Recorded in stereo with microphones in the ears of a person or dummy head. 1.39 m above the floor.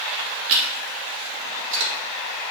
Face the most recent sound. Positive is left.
turn(degrees=-80)